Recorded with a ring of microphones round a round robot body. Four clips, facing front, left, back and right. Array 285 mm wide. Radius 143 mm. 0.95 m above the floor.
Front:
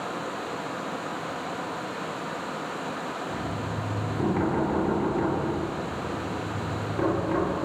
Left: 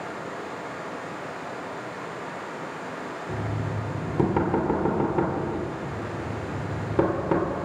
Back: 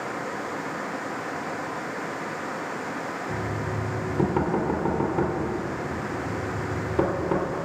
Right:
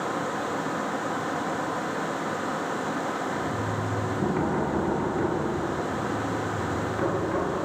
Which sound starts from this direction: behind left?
Knocking, at 3.3 s.